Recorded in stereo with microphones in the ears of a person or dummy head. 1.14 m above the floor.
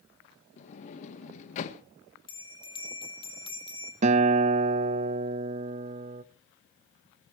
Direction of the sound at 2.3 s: 20° left (ahead or behind).